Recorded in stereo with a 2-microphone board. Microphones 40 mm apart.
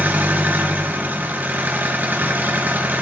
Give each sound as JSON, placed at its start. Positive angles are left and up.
{"t": 0.0, "sound": "an engine running", "side_deg": -45, "distance_m": 2.0}